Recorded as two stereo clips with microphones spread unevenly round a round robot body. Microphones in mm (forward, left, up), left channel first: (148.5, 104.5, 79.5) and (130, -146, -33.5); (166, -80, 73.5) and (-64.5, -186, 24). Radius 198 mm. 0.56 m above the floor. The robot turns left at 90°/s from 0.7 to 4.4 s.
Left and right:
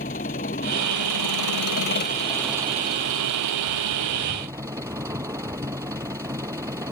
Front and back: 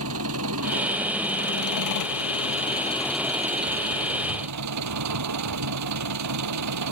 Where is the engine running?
155° left; by 6.9 s 175° right.